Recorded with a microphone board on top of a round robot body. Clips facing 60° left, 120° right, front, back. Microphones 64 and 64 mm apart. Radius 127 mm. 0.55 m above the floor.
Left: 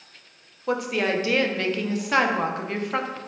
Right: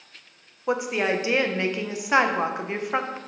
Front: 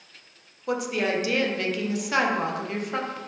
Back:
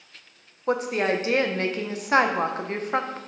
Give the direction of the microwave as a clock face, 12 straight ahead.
I don't hear a microwave.